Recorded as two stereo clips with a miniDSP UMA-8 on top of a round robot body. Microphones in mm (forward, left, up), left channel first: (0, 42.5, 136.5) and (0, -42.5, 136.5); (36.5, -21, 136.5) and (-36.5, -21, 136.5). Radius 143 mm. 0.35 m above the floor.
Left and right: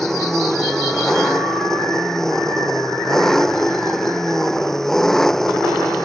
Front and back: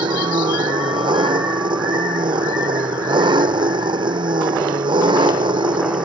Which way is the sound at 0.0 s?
175° left.